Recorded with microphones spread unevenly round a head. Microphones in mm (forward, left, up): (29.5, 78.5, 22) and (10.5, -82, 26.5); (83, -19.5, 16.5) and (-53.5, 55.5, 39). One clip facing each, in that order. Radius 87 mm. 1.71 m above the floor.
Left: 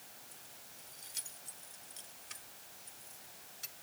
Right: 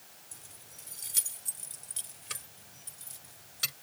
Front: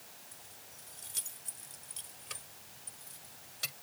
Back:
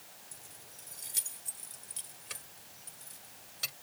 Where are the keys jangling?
140° right; by 3.7 s 120° right.